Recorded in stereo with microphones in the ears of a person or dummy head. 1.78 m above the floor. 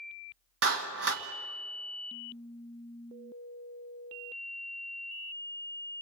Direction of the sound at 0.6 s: 65° right (ahead or behind).